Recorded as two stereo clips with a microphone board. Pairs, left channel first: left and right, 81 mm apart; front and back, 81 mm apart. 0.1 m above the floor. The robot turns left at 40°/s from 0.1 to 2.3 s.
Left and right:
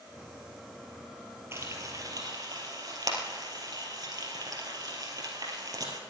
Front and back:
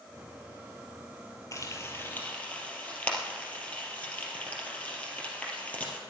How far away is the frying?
About 2.5 m.